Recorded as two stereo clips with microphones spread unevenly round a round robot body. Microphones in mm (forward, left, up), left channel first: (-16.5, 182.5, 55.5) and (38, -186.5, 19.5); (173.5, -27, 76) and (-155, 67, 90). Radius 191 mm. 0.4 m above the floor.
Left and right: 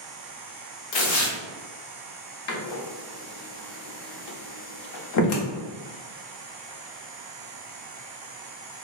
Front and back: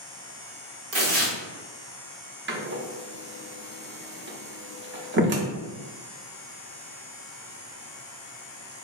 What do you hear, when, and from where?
0.9 s tearing paper: 115° left, 1.0 m
2.5 s a door slam: 120° left, 0.6 m